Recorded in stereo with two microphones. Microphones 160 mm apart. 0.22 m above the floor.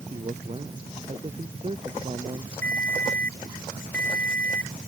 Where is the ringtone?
10° left (ahead or behind).